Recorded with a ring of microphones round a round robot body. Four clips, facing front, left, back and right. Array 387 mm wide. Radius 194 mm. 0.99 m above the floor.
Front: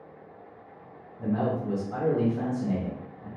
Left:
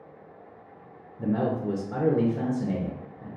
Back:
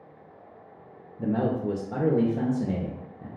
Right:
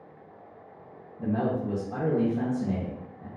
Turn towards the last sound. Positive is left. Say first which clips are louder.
# left 1 dB, back 2 dB
turn(degrees=155)